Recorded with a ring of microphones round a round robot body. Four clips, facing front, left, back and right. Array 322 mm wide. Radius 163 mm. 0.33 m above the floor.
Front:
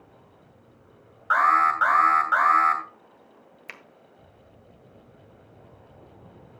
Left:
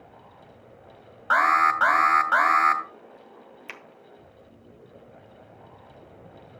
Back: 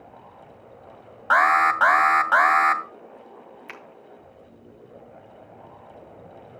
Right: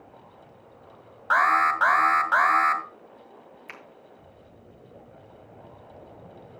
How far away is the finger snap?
About 1.6 m.